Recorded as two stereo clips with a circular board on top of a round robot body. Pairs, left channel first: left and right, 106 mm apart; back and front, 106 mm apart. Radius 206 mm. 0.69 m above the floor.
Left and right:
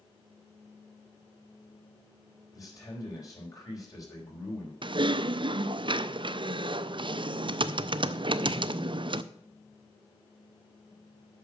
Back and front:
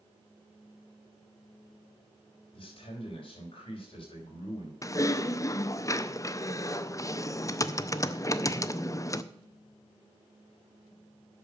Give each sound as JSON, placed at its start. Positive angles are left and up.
{"t": 2.5, "sound": "a man speaking", "azimuth_deg": 145, "distance_m": 5.0}
{"t": 4.8, "sound": "typing on a keyboard", "azimuth_deg": -125, "distance_m": 0.7}